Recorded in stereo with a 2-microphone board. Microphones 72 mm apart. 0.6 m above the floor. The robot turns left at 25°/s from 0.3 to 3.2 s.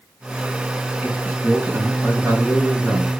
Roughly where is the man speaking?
Ahead.